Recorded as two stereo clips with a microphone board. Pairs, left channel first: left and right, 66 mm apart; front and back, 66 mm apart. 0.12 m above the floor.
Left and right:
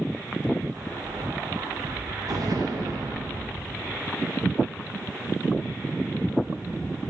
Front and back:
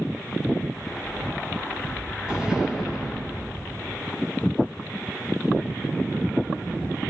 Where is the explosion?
105° right, 7.5 m.